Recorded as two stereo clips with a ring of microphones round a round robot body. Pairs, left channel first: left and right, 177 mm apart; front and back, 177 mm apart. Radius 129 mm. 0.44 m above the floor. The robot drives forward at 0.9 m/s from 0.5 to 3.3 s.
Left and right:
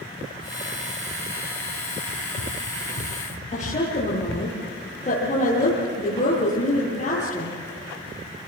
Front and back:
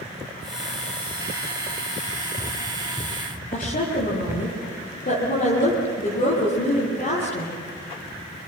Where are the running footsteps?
90° left, 4 m; by 4.5 s 110° left, 6.5 m.